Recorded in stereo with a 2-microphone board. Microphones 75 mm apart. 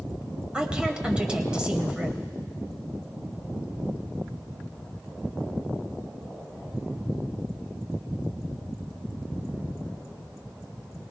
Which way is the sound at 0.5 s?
15° right (ahead or behind).